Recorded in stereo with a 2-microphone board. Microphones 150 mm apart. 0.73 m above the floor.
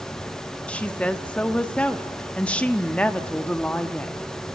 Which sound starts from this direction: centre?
A woman speaking, at 0.7 s.